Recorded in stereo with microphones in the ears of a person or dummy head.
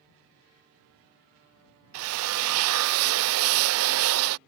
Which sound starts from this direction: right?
A drill, at 1.9 s.